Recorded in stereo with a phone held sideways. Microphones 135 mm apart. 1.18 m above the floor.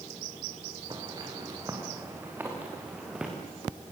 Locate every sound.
0.9 s footsteps: 30° right (ahead or behind), 6.5 m; by 3.3 s 5° right (ahead or behind), 6 m